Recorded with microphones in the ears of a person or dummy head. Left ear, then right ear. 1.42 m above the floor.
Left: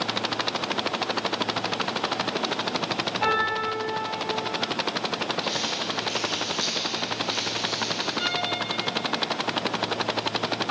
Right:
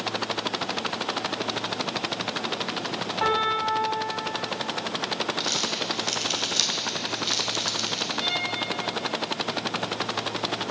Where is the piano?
45° right (ahead or behind), 4 m.